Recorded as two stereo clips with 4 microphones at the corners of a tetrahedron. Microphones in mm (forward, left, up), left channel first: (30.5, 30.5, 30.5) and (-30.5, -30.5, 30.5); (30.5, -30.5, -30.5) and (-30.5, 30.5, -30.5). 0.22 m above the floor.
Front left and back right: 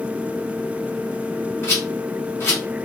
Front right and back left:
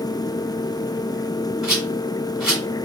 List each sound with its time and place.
1.6 s a rattle: 60° left, 1.9 m